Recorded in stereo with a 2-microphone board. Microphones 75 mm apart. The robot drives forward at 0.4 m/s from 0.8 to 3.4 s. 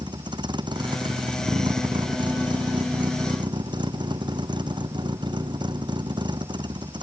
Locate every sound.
0.0 s a vehicle: 75° right (ahead or behind)